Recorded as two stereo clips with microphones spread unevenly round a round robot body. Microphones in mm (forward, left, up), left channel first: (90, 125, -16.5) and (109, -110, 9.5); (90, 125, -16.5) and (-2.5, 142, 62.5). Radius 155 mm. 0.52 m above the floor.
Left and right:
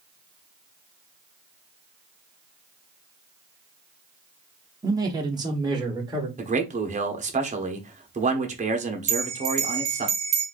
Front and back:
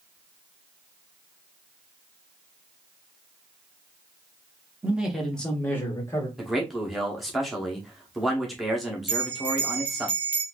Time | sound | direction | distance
4.8 | a man speaking | 15° right | 0.8 m
6.4 | a man speaking | 30° right | 1.0 m
9.1 | a bell | 55° right | 1.2 m